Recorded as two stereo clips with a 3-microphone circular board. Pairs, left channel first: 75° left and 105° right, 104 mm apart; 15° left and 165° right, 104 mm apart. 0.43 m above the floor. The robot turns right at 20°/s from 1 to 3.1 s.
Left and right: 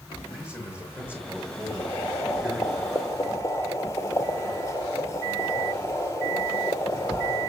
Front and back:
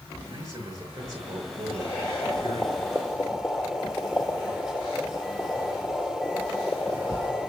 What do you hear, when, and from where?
0.2 s a man speaking: 140° left, 6 m; by 2.7 s 175° left, 6 m
1.7 s boiling: 85° left, 1.4 m; by 7.5 s 115° left, 1.4 m